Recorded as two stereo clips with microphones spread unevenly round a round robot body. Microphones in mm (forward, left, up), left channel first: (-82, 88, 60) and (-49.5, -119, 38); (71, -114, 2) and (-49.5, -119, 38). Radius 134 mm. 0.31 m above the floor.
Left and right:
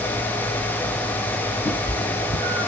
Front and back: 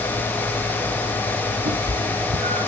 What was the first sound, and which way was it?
A cat meowing, 175° left.